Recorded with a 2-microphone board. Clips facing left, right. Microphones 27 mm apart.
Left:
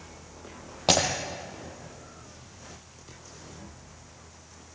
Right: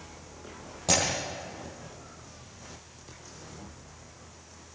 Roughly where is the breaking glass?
Left.